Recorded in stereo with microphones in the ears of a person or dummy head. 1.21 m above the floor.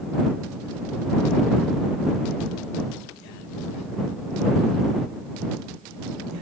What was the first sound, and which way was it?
Only background noise.